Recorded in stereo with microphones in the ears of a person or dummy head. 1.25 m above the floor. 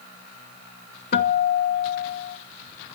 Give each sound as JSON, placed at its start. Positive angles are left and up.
{"t": 1.1, "sound": "a guitar", "side_deg": 45, "distance_m": 1.6}